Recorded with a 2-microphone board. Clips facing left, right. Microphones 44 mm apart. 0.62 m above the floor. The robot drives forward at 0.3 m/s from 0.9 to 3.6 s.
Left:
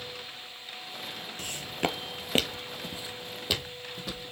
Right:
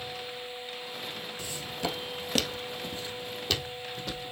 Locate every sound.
1.4 s footsteps: 50° left (ahead or behind), 0.9 m; by 4.3 s 5° left (ahead or behind), 2 m